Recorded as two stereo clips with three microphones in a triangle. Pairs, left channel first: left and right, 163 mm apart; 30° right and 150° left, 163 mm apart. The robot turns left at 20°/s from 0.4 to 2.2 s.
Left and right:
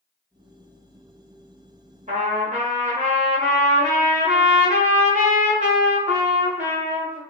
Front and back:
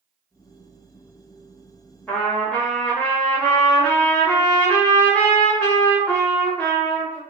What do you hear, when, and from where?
2.1 s a trumpet: 110° right, 1.0 m